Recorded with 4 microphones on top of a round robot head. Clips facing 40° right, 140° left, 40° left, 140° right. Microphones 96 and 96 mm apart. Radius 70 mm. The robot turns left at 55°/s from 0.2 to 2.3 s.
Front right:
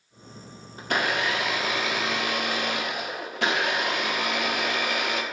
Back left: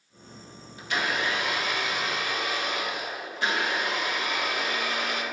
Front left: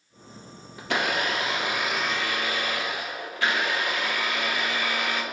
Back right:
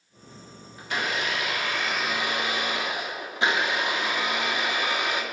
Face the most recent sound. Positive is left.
turn(degrees=-70)